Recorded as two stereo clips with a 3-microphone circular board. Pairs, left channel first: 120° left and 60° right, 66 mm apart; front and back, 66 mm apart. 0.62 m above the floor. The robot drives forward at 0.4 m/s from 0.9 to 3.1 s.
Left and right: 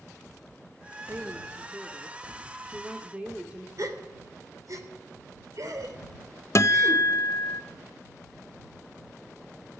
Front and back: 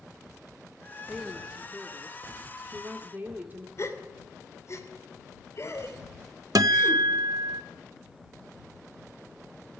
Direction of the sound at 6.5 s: 160° left.